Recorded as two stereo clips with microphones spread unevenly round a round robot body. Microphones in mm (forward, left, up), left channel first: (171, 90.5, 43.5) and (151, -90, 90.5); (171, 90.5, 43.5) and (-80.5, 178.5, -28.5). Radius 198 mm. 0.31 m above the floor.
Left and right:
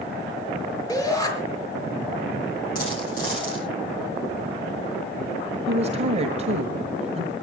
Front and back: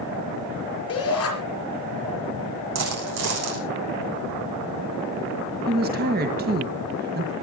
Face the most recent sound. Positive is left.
turn(degrees=-165)